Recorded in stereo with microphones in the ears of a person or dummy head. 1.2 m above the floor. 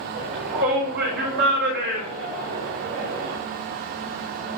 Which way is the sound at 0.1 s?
50° right (ahead or behind).